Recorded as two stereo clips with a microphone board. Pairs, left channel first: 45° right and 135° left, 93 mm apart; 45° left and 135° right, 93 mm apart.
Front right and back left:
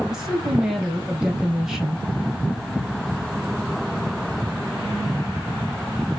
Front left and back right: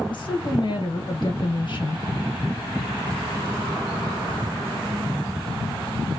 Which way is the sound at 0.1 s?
50° left.